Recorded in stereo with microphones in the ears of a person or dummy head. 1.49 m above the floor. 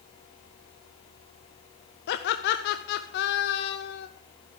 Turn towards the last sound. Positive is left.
turn(degrees=55)  # may be behind; listen again after turning